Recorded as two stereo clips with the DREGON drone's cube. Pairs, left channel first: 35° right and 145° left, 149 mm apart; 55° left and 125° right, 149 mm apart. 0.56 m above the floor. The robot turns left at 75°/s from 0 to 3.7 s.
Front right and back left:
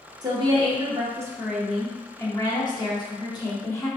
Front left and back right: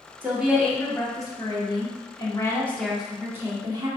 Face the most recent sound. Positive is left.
turn(degrees=-90)